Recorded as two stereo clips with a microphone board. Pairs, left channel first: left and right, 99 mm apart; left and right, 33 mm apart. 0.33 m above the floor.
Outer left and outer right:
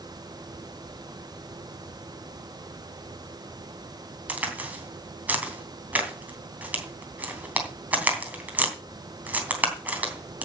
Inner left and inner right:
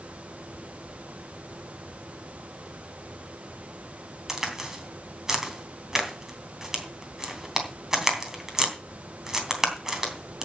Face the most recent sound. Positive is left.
turn(degrees=-15)  # may be behind; listen again after turning